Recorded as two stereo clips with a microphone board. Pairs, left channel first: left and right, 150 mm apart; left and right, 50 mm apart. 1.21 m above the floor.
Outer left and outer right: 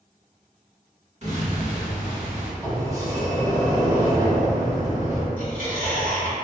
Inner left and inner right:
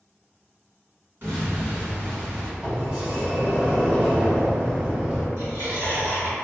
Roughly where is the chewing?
Right.